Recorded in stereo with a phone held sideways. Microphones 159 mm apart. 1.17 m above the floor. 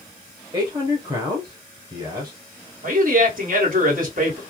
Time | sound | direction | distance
0.5 | a man speaking | 25° right (ahead or behind) | 0.7 m
2.8 | a man speaking | 60° right (ahead or behind) | 1.4 m